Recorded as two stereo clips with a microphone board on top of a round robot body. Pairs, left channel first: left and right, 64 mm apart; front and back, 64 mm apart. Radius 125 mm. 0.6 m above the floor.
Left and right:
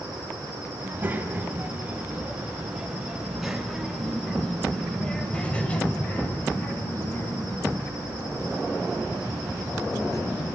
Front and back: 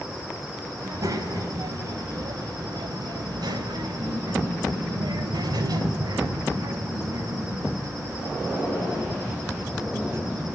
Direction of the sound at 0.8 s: 150° right.